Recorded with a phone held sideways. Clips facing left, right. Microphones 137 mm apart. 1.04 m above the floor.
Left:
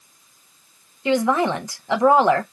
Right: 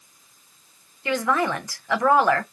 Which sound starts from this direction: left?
A woman speaking, at 1.1 s.